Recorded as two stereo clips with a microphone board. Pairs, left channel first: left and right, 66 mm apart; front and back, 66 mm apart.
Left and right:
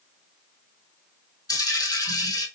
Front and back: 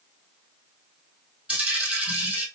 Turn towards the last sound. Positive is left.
turn(degrees=105)